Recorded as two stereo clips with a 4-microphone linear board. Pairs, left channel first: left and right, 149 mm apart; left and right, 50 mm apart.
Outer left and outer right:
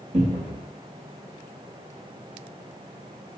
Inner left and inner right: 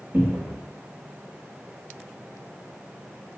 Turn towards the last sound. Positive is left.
turn(degrees=-45)  # may be behind; listen again after turning